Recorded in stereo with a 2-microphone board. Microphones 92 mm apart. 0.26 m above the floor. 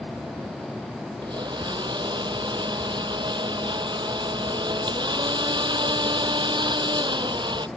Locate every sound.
1.2 s a blender: 50° right (ahead or behind)